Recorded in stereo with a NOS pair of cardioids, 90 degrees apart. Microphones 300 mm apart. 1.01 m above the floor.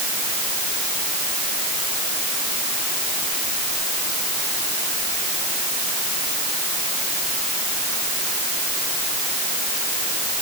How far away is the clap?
No clap in this recording.